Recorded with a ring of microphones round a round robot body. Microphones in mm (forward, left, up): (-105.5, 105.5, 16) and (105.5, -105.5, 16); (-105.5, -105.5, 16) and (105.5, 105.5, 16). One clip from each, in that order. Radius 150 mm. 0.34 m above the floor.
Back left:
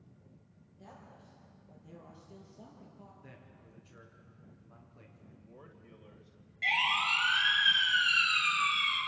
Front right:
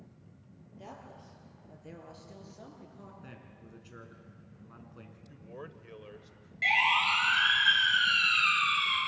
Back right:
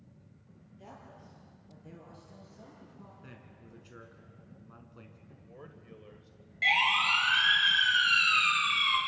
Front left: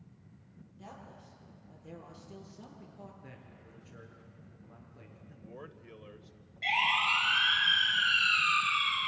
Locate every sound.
0.8 s a woman speaking: 45° right, 7.5 m; by 3.1 s 25° right, 4.5 m
3.2 s a man speaking: 95° right, 4.5 m
5.3 s a man speaking: 20° right, 1.6 m
6.6 s a siren: 120° right, 7 m; by 9.0 s 150° right, 6.5 m